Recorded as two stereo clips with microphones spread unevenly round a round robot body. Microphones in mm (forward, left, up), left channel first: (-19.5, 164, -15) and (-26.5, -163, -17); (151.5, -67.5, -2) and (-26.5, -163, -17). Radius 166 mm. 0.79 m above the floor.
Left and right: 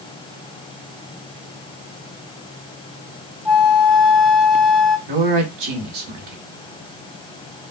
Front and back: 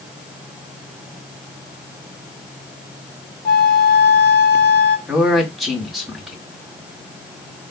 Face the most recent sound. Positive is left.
turn(degrees=-65)